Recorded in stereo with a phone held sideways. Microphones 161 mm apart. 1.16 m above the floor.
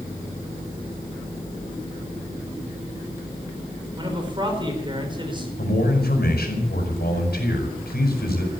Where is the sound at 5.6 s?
85° left, 5.5 m.